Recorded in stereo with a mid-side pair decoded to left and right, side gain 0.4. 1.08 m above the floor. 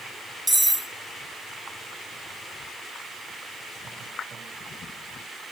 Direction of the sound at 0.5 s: 10° right.